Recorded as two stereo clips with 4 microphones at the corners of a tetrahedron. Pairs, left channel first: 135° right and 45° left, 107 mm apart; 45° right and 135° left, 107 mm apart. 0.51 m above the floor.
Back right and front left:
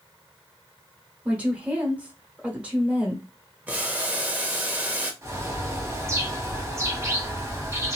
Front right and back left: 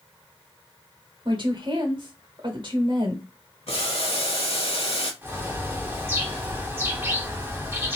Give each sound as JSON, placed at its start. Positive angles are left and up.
{"t": 1.2, "sound": "a woman speaking", "azimuth_deg": 120, "distance_m": 1.4}
{"t": 3.7, "sound": "boiling", "azimuth_deg": -30, "distance_m": 0.9}
{"t": 5.2, "sound": "a bird", "azimuth_deg": 85, "distance_m": 0.9}